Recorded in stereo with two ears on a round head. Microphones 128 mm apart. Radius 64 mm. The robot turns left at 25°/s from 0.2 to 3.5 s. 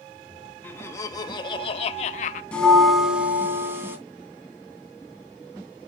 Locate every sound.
0.6 s laughter: 165° left, 1.1 m; by 2.4 s 120° left, 1.1 m
2.5 s a bell: 10° left (ahead or behind), 2.5 m; by 4.0 s 15° right (ahead or behind), 2.5 m